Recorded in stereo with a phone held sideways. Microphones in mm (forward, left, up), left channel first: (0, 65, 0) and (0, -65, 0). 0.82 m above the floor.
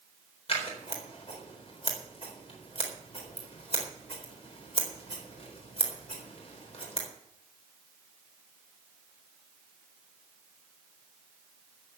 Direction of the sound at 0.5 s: 50° left (ahead or behind).